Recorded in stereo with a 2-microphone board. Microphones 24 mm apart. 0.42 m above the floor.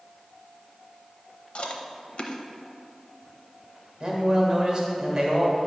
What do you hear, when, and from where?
1.6 s chewing: 60° left (ahead or behind), 0.7 m
4.0 s a man speaking: 35° right (ahead or behind), 1.6 m